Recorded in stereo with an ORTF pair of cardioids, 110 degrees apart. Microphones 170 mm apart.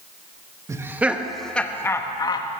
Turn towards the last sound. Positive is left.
turn(degrees=30)